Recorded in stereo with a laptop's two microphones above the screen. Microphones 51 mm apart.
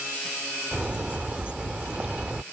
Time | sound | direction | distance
0.7 | a bird | 25° right (ahead or behind) | ?